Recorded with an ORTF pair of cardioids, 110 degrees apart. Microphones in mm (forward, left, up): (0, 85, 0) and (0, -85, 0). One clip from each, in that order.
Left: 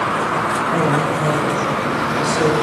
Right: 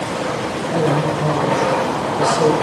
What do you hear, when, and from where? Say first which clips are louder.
0.7 s a woman speaking: left 1 dB; 5° left, 8 m